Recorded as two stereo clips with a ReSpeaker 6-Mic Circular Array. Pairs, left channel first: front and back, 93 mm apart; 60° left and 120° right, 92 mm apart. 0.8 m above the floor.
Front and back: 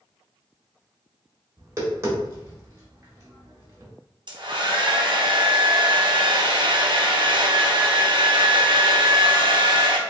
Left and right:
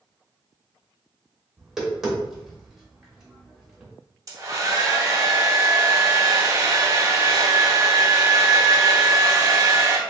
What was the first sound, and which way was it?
Tapping, 160° left.